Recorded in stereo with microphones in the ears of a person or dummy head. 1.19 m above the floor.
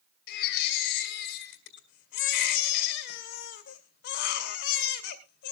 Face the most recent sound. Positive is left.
turn(degrees=60)  # may be behind; listen again after turning